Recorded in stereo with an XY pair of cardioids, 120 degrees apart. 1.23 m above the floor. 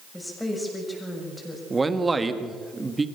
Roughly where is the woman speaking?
Ahead.